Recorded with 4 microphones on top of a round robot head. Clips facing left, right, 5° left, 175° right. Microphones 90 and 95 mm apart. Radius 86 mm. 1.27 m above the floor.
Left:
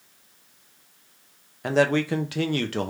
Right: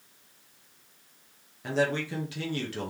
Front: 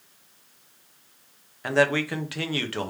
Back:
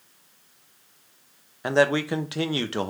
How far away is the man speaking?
About 0.7 m.